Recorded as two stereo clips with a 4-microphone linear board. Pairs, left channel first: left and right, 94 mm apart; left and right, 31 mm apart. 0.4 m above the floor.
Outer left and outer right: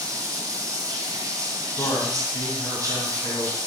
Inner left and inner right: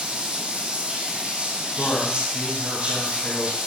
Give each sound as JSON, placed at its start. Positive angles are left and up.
{"t": 0.0, "sound": "running water", "side_deg": -35, "distance_m": 1.5}
{"t": 1.8, "sound": "a man speaking", "side_deg": 30, "distance_m": 2.5}